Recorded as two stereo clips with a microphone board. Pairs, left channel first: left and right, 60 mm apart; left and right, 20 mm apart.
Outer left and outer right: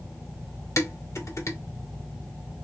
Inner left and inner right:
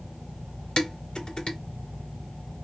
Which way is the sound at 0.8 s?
60° left (ahead or behind).